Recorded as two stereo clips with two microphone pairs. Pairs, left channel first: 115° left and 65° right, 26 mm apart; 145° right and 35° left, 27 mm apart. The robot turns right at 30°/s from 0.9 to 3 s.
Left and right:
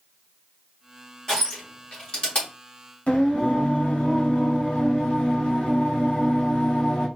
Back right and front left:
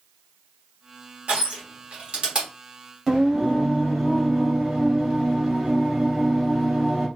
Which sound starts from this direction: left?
Singing, at 3.1 s.